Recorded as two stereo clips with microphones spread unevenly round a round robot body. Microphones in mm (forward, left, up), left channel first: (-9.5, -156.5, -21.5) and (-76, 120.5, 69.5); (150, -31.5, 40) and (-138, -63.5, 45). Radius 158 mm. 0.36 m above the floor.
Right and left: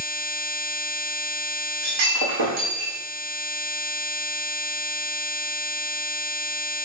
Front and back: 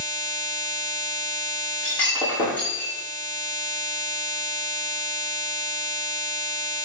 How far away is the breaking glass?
About 5.5 m.